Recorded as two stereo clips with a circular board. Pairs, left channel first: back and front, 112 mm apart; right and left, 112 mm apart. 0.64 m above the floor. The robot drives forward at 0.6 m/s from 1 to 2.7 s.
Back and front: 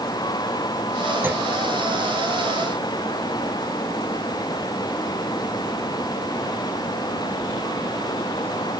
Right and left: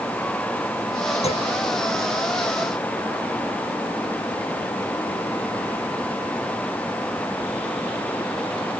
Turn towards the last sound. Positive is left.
turn(degrees=-90)